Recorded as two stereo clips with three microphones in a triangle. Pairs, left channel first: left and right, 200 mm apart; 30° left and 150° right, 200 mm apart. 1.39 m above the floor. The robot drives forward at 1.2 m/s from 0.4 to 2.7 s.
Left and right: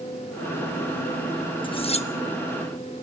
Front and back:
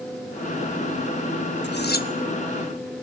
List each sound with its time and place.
1.6 s cutlery clinking: 30° left, 1.3 m; by 2.1 s 50° left, 1.0 m